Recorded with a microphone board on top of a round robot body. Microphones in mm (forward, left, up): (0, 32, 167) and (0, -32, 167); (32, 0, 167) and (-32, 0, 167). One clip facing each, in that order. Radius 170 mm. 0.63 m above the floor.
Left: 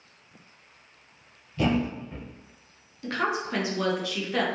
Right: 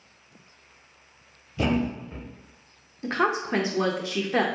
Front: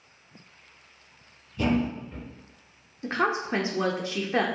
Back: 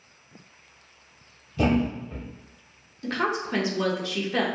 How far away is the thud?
About 0.8 m.